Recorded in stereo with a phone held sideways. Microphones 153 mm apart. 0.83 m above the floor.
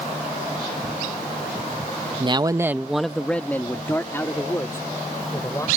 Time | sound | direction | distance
2.2 | a man speaking | 30° right (ahead or behind) | ?